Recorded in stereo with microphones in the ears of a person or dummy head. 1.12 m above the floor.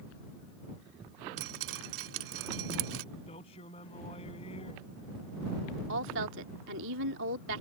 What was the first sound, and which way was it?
Dripping, 75° right (ahead or behind).